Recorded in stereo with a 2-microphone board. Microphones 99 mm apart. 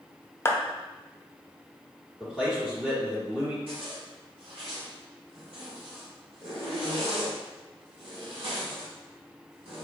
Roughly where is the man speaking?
Centre.